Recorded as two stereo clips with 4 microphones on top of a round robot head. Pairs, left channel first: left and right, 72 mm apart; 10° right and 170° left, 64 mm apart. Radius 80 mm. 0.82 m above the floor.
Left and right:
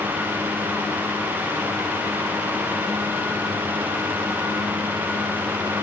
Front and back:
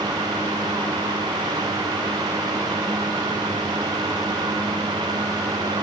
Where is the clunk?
I don't hear a clunk.